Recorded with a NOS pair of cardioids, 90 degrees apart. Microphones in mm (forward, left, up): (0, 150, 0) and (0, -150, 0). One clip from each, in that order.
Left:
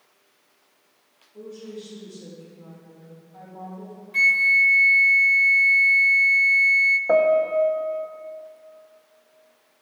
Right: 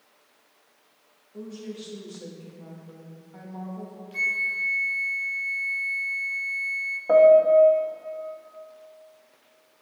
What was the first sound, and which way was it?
A woman speaking, 50° right.